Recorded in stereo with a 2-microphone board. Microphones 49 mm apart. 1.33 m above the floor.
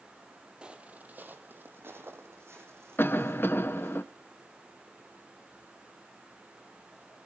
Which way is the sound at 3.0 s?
50° left (ahead or behind).